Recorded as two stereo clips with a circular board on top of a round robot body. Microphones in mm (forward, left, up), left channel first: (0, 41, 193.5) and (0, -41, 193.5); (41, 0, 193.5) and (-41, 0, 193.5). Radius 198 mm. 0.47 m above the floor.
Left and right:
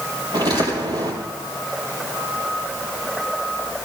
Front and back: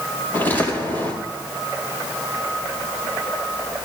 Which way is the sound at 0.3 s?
65° right.